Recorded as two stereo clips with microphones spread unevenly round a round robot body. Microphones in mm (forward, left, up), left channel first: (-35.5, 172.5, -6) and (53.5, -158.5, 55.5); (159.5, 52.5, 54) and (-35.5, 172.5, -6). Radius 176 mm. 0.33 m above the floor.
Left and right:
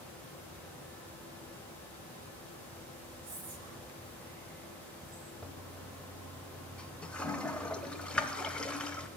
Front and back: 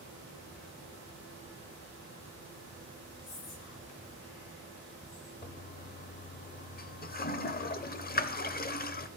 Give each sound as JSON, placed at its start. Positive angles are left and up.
{"t": 3.2, "sound": "whispering", "azimuth_deg": -30, "distance_m": 3.5}
{"t": 5.4, "sound": "a toilet flushing", "azimuth_deg": 25, "distance_m": 1.0}